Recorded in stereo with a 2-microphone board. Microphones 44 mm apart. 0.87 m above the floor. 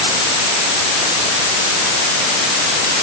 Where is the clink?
I don't hear a clink.